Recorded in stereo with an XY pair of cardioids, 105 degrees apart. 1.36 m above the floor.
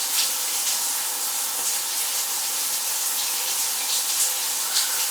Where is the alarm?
No alarm in this recording.